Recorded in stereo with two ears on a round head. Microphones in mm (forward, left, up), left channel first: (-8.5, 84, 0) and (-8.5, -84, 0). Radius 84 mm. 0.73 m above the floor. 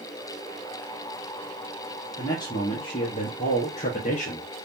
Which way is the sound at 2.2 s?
20° left (ahead or behind).